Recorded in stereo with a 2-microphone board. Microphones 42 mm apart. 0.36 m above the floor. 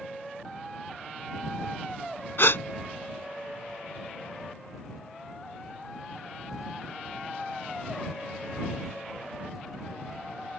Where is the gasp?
70° left (ahead or behind).